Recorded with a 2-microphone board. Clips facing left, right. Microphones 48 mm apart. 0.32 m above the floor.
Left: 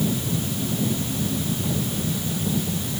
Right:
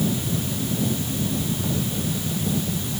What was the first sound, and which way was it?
Only background noise.